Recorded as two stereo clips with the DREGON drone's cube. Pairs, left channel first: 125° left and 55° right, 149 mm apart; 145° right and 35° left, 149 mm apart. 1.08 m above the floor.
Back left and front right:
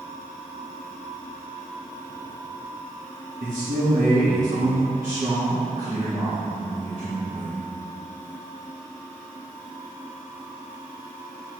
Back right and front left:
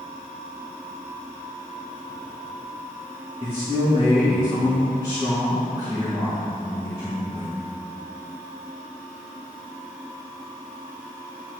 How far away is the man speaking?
About 1.6 m.